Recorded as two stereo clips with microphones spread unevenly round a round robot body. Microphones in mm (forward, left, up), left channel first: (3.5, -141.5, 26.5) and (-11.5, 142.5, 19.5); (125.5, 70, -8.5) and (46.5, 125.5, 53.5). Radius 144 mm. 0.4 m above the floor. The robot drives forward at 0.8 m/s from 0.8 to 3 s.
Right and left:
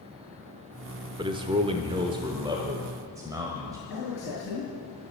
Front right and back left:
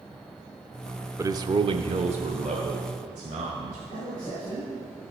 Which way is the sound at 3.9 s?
135° right.